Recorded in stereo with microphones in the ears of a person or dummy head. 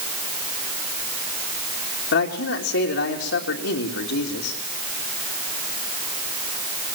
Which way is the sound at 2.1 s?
70° left (ahead or behind).